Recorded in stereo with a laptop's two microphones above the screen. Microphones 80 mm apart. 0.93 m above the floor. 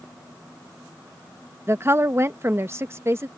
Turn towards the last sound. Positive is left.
turn(degrees=-35)  # may be behind; listen again after turning